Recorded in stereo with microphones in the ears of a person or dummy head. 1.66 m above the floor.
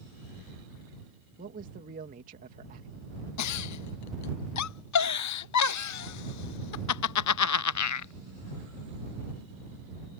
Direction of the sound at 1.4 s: 45° right (ahead or behind).